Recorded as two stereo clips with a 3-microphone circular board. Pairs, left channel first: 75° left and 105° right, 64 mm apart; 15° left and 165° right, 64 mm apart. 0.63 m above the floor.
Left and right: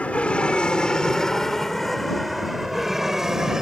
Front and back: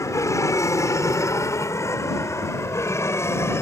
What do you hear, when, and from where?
0.0 s an aircraft: 10° left; by 3.6 s 25° right